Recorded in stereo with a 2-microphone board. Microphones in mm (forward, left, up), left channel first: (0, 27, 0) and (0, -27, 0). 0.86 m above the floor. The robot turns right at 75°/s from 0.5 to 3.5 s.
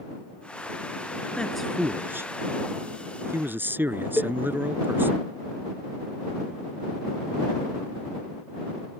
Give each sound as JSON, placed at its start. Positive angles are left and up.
{"t": 1.4, "sound": "a man speaking", "azimuth_deg": 160}
{"t": 4.2, "sound": "a cowbell", "side_deg": -30}